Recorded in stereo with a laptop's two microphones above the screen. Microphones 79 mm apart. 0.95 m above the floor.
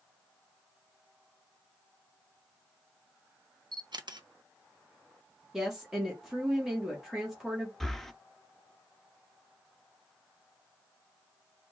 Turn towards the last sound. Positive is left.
turn(degrees=5)  # may be behind; listen again after turning